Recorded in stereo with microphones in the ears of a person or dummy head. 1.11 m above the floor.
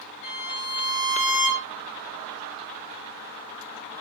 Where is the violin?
70° left (ahead or behind), 2.5 m.